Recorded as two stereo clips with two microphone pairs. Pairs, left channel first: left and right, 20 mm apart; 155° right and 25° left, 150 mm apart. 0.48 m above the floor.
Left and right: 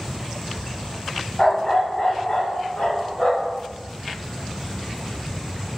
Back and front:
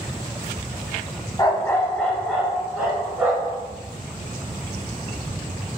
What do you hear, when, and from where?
1.4 s a dog barking: 145° left, 0.6 m; by 3.6 s 105° left, 1.6 m